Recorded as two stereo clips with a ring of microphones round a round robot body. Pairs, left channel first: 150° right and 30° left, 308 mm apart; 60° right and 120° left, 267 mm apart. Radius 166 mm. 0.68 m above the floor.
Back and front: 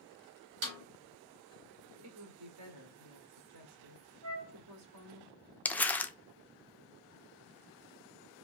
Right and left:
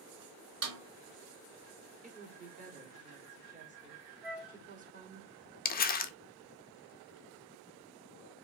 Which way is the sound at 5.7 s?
70° right.